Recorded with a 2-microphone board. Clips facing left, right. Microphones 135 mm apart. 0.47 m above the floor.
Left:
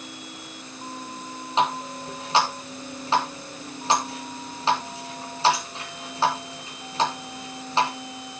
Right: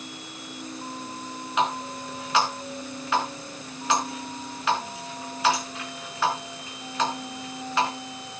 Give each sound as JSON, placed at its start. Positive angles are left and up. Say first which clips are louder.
{"t": 1.6, "sound": "a running tap", "louder": "left 2 dB", "side_deg": 30, "distance_m": 4.0}